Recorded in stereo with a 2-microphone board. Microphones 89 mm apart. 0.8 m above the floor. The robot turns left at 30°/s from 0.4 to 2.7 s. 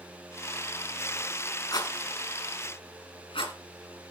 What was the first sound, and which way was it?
A rattle, 50° left (ahead or behind).